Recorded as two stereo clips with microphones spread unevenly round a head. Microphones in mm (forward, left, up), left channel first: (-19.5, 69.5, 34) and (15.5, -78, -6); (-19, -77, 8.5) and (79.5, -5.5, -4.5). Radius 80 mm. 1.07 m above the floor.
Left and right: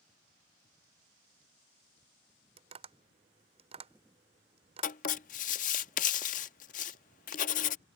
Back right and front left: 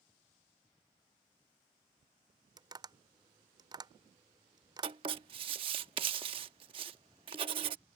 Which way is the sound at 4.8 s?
95° left.